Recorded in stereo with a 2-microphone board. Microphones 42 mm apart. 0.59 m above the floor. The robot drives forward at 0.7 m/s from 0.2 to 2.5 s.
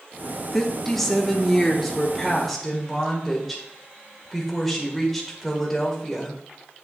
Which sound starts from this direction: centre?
A woman speaking, at 0.5 s.